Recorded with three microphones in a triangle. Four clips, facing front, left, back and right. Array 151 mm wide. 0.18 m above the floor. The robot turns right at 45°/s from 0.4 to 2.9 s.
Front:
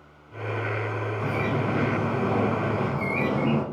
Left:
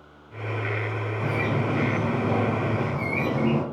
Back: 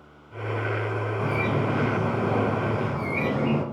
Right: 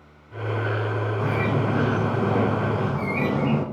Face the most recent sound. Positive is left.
turn(degrees=-55)